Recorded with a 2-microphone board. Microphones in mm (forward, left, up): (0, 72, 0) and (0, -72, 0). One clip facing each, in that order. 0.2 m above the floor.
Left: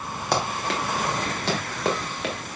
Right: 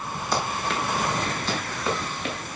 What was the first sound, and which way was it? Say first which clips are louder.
Running footsteps: left 2 dB; 65° left (ahead or behind).